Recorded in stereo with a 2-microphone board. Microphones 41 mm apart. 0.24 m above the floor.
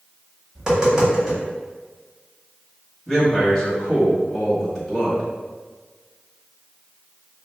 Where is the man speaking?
10° left (ahead or behind), 1.3 m.